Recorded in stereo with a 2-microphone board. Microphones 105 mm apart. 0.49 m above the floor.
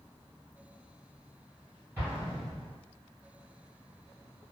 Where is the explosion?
20° right (ahead or behind), 1.4 m.